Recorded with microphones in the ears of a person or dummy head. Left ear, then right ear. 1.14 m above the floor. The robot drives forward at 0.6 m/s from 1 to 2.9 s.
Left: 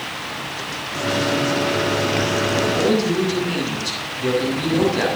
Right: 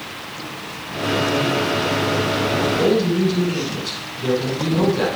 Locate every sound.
2.5 s a man speaking: 75° left (ahead or behind), 8 m